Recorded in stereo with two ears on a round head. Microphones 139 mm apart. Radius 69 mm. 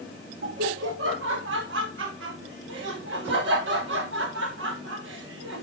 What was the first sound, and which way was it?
Laughter, 90° right.